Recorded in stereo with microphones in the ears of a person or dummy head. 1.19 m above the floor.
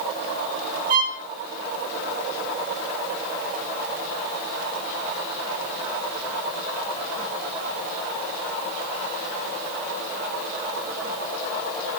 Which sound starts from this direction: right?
A violin, at 0.9 s.